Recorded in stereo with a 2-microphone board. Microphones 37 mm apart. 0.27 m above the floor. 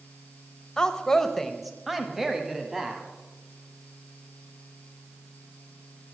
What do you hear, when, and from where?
0.8 s a woman speaking: 15° left (ahead or behind), 0.9 m; by 3.0 s 15° right (ahead or behind), 1.7 m